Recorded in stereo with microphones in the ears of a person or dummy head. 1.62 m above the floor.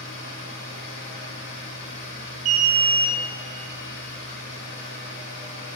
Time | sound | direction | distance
0.0 | a machine running | 65° left (ahead or behind) | 1.0 m
2.5 | an alarm | 40° right (ahead or behind) | 0.6 m